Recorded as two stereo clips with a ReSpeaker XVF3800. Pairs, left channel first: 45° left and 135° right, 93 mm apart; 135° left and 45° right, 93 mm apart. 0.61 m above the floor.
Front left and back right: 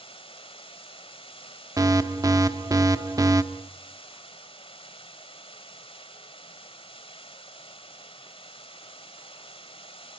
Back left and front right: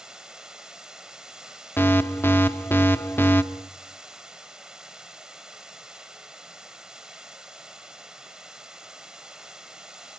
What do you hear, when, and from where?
0.0 s running water: 40° left, 1.9 m
1.8 s an alarm: 165° right, 0.9 m